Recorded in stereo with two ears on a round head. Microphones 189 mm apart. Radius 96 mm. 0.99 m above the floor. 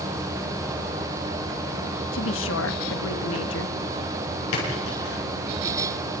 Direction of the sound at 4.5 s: 85° left.